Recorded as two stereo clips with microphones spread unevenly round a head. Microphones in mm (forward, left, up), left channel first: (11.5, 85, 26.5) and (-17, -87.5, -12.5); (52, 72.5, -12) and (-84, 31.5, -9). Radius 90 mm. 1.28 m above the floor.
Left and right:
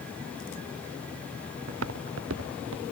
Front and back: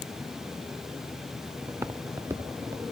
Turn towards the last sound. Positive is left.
turn(degrees=-85)